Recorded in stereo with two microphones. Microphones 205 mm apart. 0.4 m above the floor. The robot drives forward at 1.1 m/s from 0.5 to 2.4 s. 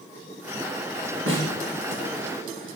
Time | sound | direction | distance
1.3 | a snare drum | 80° right | 3.5 m